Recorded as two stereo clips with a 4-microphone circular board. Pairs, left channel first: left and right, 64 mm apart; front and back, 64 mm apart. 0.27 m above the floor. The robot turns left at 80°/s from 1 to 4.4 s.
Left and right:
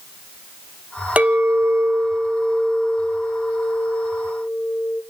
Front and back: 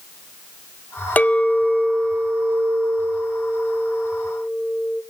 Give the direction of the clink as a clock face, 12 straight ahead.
1 o'clock.